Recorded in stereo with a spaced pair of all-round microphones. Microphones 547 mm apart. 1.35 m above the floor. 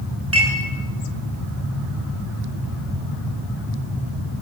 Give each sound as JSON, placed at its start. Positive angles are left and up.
{"t": 0.3, "sound": "dishes clattering", "side_deg": -25, "distance_m": 10.0}